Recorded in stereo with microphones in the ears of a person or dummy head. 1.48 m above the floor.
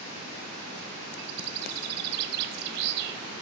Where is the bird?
60° right (ahead or behind), 0.9 m.